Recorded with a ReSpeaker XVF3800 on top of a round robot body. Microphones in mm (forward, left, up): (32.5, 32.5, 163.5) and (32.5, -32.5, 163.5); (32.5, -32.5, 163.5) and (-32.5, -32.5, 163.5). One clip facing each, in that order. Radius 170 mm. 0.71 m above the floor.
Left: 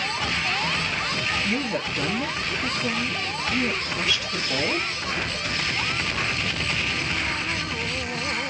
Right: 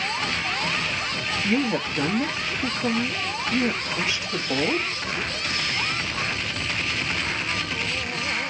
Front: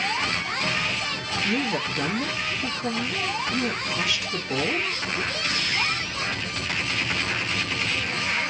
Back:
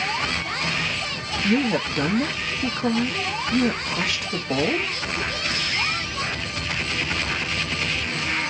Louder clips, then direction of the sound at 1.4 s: Right 3 dB, back 5 dB; 150° right.